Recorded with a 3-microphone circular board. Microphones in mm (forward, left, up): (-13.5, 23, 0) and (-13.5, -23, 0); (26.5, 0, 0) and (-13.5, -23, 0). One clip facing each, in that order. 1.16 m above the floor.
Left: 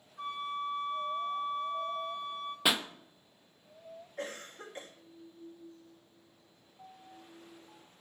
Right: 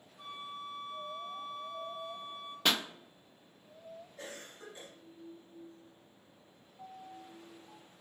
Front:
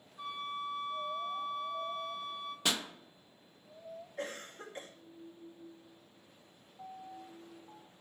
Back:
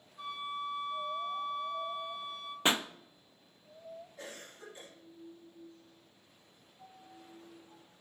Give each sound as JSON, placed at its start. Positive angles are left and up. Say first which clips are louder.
{"t": 0.2, "sound": "a flute", "louder": "left 8 dB, back 1 dB", "azimuth_deg": 120, "distance_m": 5.0}
{"t": 2.6, "sound": "a pop", "louder": "left 1 dB, back 5 dB", "azimuth_deg": 165, "distance_m": 0.5}
{"t": 4.2, "sound": "a cough", "louder": "left 9 dB, front 6 dB", "azimuth_deg": 60, "distance_m": 2.5}
{"t": 6.8, "sound": "a piano", "louder": "right 4 dB, front 7 dB", "azimuth_deg": -10, "distance_m": 3.5}